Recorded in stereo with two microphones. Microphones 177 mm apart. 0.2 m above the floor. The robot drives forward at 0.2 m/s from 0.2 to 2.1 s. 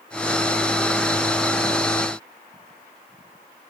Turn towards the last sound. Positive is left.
No sound to turn to.